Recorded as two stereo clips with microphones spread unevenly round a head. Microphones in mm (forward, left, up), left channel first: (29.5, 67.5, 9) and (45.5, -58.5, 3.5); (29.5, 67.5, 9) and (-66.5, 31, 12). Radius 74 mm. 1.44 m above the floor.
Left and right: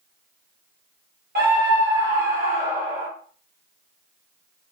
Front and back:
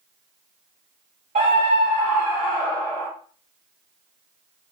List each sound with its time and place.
1.4 s a scream: 110° right, 1.2 m; by 3.1 s 55° right, 1.1 m